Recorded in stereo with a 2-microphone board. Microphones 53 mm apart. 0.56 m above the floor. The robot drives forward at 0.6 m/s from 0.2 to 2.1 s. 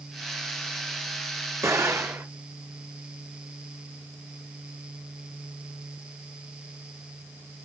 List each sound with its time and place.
1.6 s an explosion: 75° right (ahead or behind), 2.5 m; by 2.2 s 65° right (ahead or behind), 2.5 m